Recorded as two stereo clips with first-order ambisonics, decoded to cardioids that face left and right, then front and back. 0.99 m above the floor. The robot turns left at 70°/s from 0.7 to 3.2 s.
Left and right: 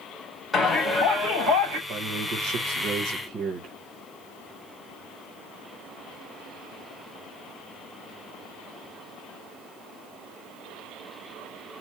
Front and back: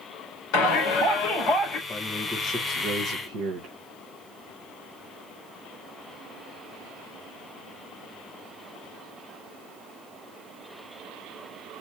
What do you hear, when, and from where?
0.5 s a shout: 5° left, 3.5 m; by 1.8 s 75° right, 3.5 m
1.9 s a man speaking: 60° right, 1.3 m; by 3.7 s 150° right, 1.3 m